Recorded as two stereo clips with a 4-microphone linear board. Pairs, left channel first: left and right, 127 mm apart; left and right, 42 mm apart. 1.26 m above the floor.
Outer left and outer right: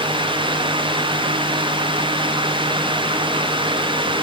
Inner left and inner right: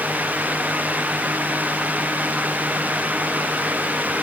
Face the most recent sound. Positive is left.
No sound to turn to.